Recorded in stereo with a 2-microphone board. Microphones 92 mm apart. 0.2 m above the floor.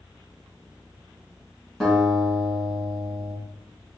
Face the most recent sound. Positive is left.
turn(degrees=0)  # may be behind; listen again after turning